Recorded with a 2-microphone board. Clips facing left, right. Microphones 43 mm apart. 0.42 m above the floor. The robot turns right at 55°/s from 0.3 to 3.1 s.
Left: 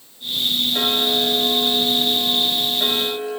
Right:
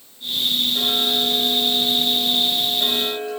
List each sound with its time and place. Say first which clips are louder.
0.7 s ticking: left 1 dB; 40° left, 5.5 m; by 3.4 s 170° left, 5.5 m